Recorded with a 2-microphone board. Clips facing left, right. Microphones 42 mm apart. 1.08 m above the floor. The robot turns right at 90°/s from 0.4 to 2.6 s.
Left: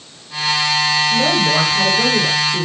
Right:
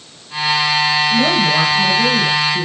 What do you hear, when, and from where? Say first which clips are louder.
1.1 s a woman speaking: right 1 dB; 25° right, 6.5 m; by 2.6 s 110° left, 6.5 m